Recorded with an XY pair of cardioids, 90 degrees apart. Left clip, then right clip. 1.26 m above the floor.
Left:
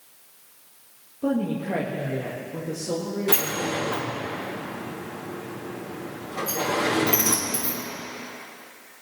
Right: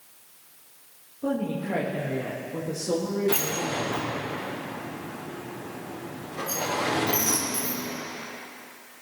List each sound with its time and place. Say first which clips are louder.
1.2 s a woman speaking: left 2 dB; 30° left, 1.8 m; by 4.3 s 30° right, 3.5 m
3.3 s a sliding door: left 5 dB; 65° left, 4 m